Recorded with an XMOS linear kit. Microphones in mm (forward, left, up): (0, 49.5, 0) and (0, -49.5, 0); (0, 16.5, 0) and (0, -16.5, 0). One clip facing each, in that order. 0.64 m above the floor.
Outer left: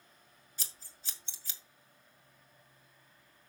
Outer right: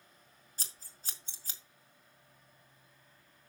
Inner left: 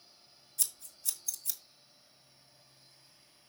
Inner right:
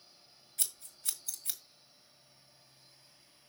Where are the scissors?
40° right (ahead or behind), 1.9 m.